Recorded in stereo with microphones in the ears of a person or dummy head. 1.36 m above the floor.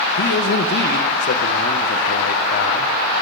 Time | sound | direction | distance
0.2 | a man speaking | 65° left (ahead or behind) | 1.0 m